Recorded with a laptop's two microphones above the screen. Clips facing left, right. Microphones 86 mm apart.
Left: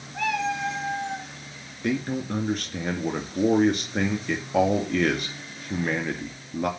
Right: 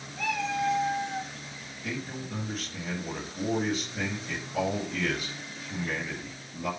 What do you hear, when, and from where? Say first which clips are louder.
0.1 s a cat meowing: left 3 dB; 80° left, 4 m
1.8 s a man speaking: left 10 dB; 70° left (ahead or behind), 2.5 m